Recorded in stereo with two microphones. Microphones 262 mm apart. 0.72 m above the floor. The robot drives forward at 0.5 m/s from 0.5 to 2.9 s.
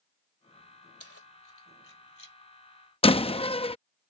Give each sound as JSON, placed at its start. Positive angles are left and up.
{"t": 1.0, "sound": "keys jangling", "side_deg": 60}
{"t": 3.0, "sound": "a door slam", "side_deg": 20}